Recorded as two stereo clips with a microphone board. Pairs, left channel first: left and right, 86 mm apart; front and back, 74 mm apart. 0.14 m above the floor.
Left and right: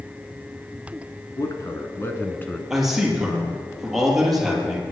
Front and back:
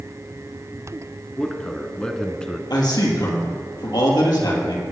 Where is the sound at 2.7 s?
5° right, 4 m.